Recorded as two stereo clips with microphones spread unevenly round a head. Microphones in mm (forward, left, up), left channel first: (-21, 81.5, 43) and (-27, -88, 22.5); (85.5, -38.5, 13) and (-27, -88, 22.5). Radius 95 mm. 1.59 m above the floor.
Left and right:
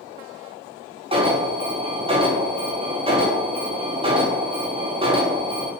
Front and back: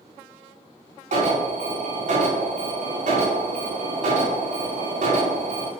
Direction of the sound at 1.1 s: 145° right.